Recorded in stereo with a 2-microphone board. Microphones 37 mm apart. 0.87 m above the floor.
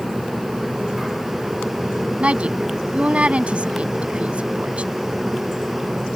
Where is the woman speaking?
30° right (ahead or behind).